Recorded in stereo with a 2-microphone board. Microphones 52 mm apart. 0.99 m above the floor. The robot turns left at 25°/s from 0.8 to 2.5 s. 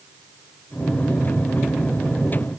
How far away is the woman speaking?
I don't hear a woman speaking.